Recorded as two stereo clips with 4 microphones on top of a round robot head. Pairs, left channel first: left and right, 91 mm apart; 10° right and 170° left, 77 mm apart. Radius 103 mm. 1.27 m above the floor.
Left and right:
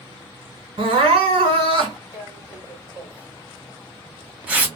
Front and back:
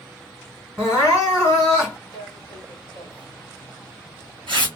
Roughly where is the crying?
Behind right.